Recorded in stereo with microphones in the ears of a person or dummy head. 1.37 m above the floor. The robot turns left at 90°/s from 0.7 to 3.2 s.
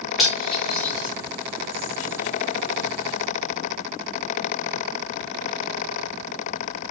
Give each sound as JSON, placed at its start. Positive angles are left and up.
{"t": 0.2, "sound": "cutlery clinking", "side_deg": 0, "distance_m": 1.6}